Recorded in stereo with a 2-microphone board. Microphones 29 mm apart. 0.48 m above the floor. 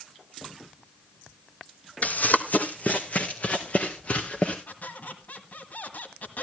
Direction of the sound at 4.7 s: 70° left (ahead or behind).